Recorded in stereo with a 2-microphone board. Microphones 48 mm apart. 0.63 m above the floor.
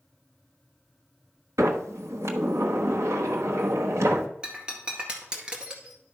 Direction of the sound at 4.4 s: 15° right (ahead or behind).